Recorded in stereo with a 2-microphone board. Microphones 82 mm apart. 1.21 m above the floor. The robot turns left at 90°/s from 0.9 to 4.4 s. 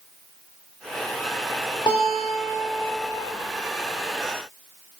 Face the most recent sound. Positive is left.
turn(degrees=-110)